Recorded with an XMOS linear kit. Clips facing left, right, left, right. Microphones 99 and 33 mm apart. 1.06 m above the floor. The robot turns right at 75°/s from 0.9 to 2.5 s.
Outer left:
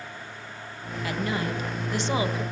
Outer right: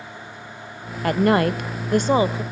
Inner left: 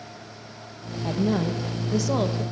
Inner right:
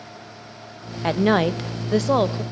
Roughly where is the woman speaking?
Behind right.